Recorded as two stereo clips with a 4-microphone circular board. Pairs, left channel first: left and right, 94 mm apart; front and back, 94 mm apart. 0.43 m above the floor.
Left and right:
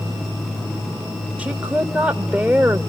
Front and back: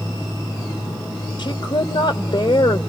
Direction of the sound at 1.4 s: 15° right.